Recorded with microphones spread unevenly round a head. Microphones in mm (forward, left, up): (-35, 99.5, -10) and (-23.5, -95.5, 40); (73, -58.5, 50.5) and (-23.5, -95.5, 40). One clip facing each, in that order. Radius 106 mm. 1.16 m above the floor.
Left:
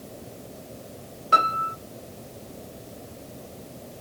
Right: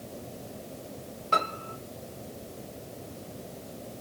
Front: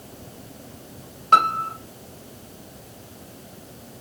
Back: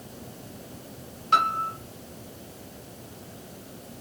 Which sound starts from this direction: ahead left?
A piano, at 1.3 s.